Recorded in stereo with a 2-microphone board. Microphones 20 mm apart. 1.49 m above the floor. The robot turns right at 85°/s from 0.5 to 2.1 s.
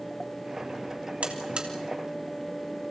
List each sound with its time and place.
1.2 s a buzzer: 80° right, 3 m; by 1.7 s 45° right (ahead or behind), 3 m